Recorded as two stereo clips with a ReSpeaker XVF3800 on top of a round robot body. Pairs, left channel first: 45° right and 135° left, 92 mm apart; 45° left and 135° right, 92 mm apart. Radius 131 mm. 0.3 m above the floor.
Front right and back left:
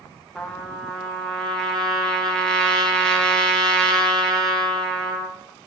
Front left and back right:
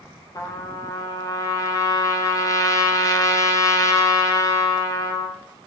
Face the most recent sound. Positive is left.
turn(degrees=30)